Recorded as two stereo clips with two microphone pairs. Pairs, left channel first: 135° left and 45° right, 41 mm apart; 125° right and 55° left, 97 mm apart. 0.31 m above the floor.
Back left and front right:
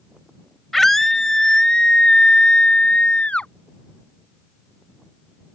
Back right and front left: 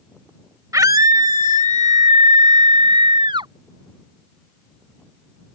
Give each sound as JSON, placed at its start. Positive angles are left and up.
{"t": 0.7, "sound": "a scream", "azimuth_deg": 45}